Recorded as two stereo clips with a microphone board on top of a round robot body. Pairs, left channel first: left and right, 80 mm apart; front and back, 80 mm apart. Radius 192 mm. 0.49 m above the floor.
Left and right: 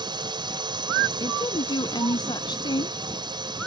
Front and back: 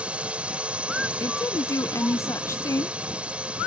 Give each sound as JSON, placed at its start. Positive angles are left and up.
{"t": 0.0, "sound": "a drone", "azimuth_deg": -105}
{"t": 1.2, "sound": "a woman speaking", "azimuth_deg": 55}